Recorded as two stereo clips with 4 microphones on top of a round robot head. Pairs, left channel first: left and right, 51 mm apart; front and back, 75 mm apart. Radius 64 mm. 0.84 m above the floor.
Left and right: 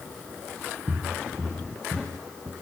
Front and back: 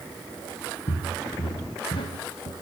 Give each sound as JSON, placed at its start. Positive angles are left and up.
{"t": 0.9, "sound": "footsteps", "azimuth_deg": 10, "distance_m": 4.0}